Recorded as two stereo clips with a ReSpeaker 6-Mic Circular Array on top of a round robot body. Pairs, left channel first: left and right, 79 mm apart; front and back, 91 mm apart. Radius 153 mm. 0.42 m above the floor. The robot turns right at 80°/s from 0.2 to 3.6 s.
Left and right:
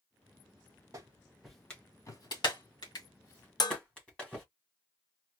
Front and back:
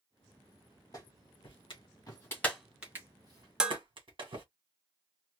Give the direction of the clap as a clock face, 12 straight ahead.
2 o'clock.